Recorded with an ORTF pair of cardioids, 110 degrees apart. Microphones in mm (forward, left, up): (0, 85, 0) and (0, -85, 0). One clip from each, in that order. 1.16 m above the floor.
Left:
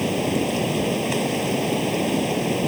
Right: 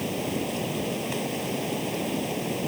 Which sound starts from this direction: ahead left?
Running water, at 0.0 s.